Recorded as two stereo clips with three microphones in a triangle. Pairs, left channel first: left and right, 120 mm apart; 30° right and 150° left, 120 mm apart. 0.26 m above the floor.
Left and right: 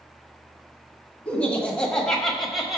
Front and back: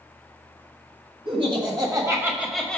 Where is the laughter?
165° left, 2 m; by 2.8 s 30° right, 1.3 m.